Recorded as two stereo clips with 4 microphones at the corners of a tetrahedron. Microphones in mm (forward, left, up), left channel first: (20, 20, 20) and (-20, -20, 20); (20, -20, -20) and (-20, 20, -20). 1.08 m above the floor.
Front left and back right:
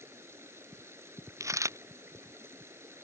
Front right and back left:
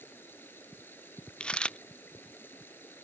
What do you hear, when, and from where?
0.0 s running water: 95° right
1.4 s a dropped coin: 115° right